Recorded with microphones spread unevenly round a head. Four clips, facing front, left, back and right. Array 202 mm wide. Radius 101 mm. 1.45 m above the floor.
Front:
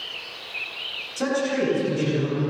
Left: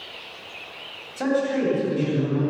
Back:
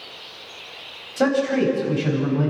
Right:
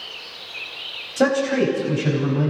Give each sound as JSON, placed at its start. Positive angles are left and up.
{"t": 1.2, "sound": "a man speaking", "azimuth_deg": -115, "distance_m": 10.0}